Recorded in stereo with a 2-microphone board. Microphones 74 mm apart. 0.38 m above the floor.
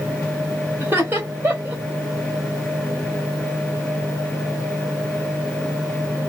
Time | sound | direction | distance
0.8 | laughter | 30° right (ahead or behind) | 1.6 m